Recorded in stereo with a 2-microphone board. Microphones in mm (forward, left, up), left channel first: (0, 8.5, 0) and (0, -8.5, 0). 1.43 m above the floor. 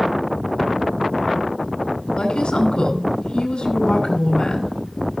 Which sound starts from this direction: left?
A woman speaking, at 2.2 s.